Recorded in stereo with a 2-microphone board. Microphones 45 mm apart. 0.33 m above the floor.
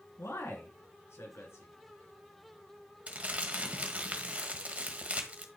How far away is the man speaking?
About 3.5 m.